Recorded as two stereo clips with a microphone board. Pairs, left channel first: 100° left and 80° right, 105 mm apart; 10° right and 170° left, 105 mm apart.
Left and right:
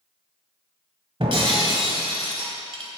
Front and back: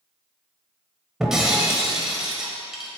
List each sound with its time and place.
1.2 s breaking glass: 105° right, 1.4 m